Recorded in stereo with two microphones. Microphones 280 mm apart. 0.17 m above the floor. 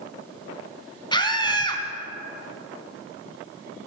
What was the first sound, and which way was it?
A scream, 15° left (ahead or behind).